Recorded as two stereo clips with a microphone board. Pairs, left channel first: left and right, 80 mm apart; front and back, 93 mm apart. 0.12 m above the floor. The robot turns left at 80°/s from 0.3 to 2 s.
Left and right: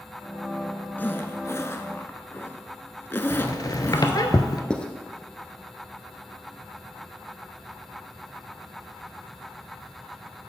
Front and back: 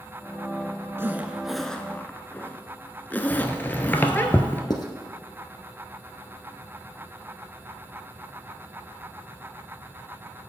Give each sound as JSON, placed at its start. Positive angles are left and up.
{"t": 1.0, "sound": "a zipper", "azimuth_deg": 135, "distance_m": 0.5}
{"t": 3.3, "sound": "a squeak", "azimuth_deg": 65, "distance_m": 0.6}
{"t": 4.7, "sound": "writing", "azimuth_deg": 15, "distance_m": 0.7}